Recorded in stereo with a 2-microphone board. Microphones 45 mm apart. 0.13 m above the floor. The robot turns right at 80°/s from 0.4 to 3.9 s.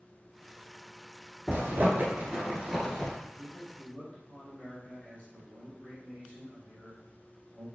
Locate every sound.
1.5 s a zipper: 45° right (ahead or behind), 1.4 m; by 3.1 s 20° left (ahead or behind), 1.4 m
3.4 s a man speaking: 15° left (ahead or behind), 1.8 m; by 7.7 s 20° left (ahead or behind), 1.8 m